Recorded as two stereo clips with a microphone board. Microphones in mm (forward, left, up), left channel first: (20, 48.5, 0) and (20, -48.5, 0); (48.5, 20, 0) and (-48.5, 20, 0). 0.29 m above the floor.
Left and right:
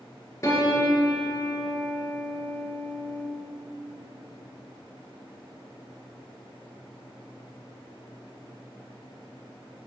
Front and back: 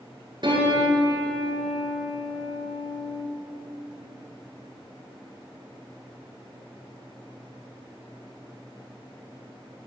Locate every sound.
0.4 s a piano: 145° left, 1.9 m